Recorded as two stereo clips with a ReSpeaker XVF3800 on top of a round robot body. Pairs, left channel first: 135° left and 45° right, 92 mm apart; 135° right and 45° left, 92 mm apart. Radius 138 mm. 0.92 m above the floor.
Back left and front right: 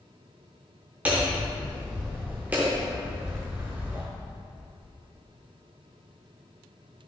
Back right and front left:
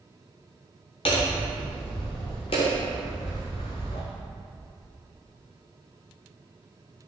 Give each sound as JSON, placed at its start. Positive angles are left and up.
{"t": 1.1, "sound": "hammering", "azimuth_deg": -115, "distance_m": 0.6}